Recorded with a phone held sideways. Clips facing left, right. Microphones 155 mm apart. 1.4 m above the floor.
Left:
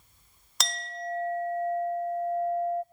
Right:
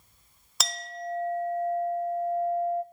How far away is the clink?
About 0.6 m.